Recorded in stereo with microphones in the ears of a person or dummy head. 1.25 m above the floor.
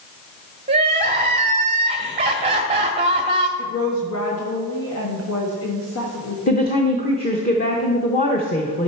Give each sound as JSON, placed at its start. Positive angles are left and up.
{"t": 0.7, "sound": "crying", "side_deg": -30, "distance_m": 0.9}
{"t": 3.6, "sound": "a woman speaking", "side_deg": 80, "distance_m": 1.6}
{"t": 6.5, "sound": "a woman speaking", "side_deg": 35, "distance_m": 0.9}